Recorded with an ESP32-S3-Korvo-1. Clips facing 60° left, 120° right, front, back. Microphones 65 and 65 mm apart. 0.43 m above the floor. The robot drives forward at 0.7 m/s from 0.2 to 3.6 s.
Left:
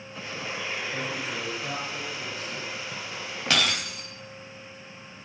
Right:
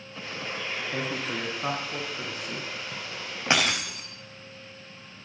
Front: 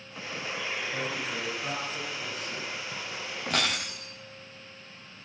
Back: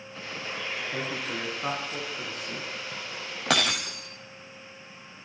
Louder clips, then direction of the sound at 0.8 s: Right 1 dB, even; 125° right.